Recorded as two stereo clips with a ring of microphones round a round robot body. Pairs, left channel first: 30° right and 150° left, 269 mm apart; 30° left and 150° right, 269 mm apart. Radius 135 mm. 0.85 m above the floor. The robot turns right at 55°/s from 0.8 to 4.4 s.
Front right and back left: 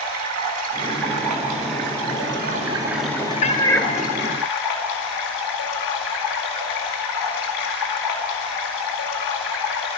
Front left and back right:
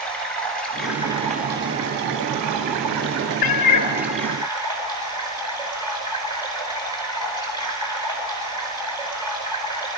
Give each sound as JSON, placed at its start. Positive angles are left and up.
{"t": 0.0, "sound": "running water", "azimuth_deg": 115, "distance_m": 4.0}
{"t": 3.4, "sound": "a cat meowing", "azimuth_deg": 35, "distance_m": 0.9}